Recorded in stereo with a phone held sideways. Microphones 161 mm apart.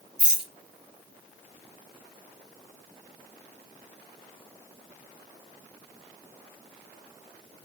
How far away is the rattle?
About 2.0 m.